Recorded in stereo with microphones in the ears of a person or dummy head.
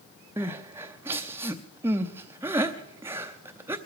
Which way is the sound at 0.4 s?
15° right (ahead or behind).